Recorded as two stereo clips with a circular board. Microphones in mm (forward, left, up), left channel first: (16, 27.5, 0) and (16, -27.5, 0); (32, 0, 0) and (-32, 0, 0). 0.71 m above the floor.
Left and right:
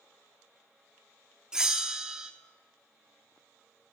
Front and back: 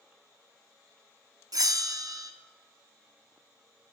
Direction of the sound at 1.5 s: 165° right.